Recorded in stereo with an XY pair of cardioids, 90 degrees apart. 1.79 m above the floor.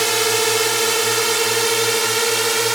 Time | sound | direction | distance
0.0 | a drone | 20° right | ?